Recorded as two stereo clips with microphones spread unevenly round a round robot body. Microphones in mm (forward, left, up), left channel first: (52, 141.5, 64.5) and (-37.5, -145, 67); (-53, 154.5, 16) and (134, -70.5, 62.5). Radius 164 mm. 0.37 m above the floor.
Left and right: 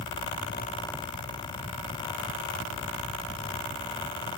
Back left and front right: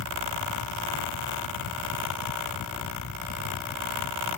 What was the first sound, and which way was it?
Only background noise.